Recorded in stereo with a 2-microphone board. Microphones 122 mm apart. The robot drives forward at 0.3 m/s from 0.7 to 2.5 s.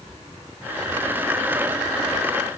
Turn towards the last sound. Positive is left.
No sound to turn to.